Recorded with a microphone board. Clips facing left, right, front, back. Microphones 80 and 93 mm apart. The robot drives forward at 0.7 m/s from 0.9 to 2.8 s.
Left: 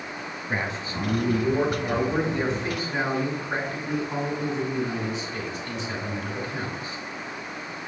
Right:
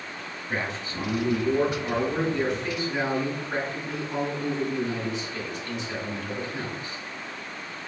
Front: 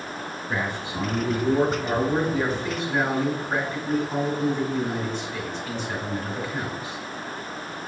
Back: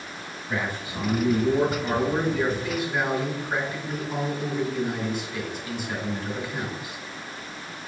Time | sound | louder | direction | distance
0.5 | a man speaking | left 1 dB, even | 35° left | 2 m